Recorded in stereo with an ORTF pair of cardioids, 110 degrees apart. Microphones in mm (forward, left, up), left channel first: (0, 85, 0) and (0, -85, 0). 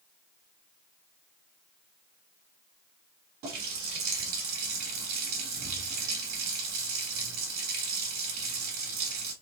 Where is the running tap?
65° right, 1.7 m.